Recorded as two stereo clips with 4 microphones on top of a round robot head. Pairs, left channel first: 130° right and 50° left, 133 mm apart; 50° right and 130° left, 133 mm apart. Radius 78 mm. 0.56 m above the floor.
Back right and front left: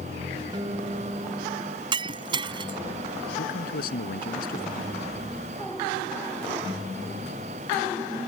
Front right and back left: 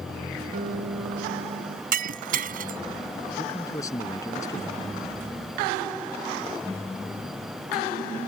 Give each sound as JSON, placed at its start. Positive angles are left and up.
{"t": 0.5, "sound": "a guitar", "azimuth_deg": 110}
{"t": 1.9, "sound": "breaking glass", "azimuth_deg": 110}
{"t": 3.4, "sound": "a man speaking", "azimuth_deg": -120}